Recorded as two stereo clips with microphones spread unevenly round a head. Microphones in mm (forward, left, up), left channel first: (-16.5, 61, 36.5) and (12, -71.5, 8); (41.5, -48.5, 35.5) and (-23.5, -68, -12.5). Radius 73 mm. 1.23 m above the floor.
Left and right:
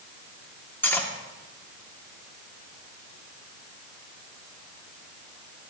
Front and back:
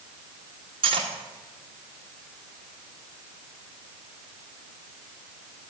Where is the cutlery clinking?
Straight behind, 2 m.